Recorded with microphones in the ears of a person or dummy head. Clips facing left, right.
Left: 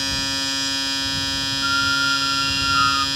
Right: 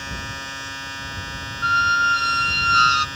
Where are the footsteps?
I don't hear footsteps.